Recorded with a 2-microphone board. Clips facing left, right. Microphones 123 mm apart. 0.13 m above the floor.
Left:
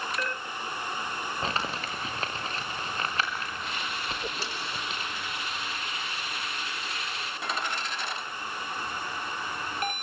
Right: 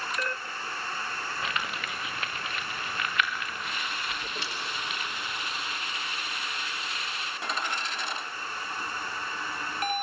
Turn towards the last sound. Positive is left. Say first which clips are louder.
# left 2 dB
turn(degrees=35)  # may be behind; listen again after turning